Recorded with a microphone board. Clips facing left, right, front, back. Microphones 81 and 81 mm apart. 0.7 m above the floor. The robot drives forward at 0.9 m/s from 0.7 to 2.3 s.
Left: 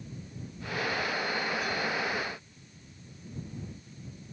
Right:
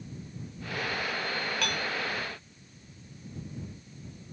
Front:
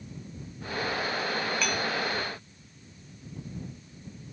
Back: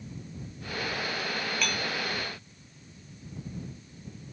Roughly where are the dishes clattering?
Right.